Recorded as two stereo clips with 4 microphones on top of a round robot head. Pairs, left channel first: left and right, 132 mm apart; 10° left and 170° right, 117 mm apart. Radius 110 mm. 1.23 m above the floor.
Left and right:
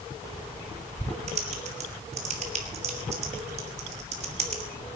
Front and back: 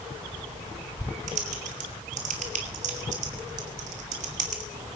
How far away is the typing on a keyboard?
About 1.6 m.